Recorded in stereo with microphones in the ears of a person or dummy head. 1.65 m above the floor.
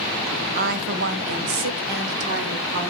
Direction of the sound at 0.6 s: 45° right (ahead or behind).